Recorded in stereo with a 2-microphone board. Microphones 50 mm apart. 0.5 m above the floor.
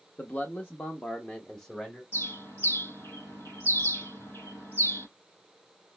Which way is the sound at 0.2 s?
40° left (ahead or behind).